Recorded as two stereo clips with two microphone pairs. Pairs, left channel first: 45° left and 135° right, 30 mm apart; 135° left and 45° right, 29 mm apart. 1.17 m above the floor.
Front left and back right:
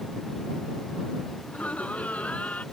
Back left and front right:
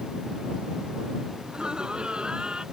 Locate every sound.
1.4 s laughter: 15° left